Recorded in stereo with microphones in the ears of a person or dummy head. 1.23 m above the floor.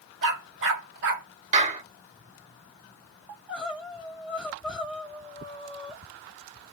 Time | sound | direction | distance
0.2 | a dog barking | 65° right (ahead or behind) | 1.6 m
1.5 | a clap | 40° right (ahead or behind) | 1.7 m
3.3 | crying | 5° right (ahead or behind) | 1.4 m